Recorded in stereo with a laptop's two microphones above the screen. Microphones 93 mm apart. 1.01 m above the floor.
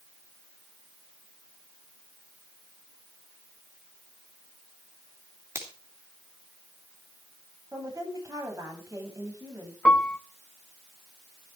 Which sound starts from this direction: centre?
A piano, at 9.8 s.